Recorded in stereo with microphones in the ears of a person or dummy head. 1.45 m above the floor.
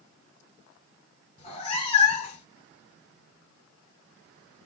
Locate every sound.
1.4 s a cat meowing: 35° left (ahead or behind), 1.4 m